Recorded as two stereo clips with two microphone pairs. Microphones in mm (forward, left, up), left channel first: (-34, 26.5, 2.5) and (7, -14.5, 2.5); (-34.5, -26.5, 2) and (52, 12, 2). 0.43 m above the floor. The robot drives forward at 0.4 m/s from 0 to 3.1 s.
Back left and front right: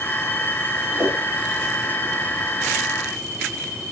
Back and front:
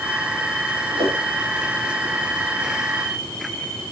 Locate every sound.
0.9 s a whoosh: 5° right, 9 m